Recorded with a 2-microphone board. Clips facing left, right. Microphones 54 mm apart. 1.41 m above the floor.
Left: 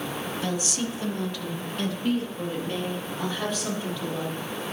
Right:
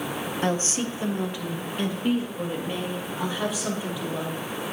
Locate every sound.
0.4 s a woman speaking: 40° right (ahead or behind), 0.8 m; by 4.4 s 10° right (ahead or behind), 4.5 m